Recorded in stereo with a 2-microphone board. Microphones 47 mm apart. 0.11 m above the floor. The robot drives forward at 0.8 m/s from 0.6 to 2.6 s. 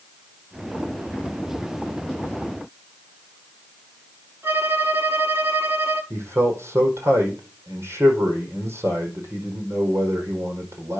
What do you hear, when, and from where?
4.4 s a violin: 50° right (ahead or behind), 8.5 m
6.1 s a man speaking: 60° right (ahead or behind), 4.5 m